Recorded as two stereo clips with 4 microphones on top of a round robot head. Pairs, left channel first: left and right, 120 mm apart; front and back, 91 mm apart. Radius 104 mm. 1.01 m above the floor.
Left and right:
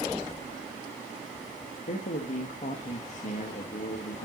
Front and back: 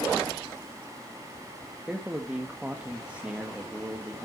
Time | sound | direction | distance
1.9 | a man speaking | 105° left | 1.5 m